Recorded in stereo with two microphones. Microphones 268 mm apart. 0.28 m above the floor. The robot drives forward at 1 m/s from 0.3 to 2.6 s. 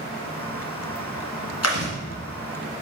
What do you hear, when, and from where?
1.6 s chewing: 65° left (ahead or behind), 2.0 m; by 1.9 s 60° left (ahead or behind), 2 m